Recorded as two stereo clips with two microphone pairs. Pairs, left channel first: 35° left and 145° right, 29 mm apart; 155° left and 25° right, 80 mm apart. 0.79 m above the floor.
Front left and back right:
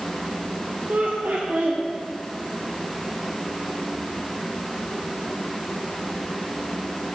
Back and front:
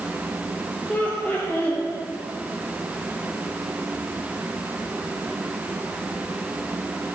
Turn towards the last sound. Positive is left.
turn(degrees=-135)